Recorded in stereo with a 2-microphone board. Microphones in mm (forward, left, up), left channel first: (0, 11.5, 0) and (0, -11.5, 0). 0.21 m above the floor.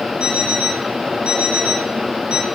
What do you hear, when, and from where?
0.2 s an alarm clock: 50° right (ahead or behind), 2.5 m